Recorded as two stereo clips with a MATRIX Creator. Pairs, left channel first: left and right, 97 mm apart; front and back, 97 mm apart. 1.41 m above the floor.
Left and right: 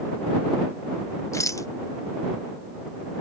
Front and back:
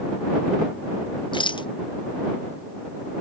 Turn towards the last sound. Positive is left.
turn(degrees=35)